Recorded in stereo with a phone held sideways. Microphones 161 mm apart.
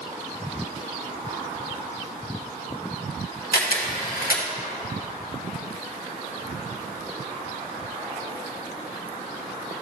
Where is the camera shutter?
70° left (ahead or behind), 1.1 m.